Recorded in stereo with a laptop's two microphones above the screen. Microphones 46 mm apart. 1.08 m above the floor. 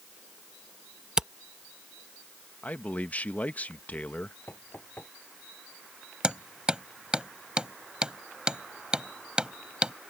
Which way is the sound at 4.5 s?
45° left (ahead or behind).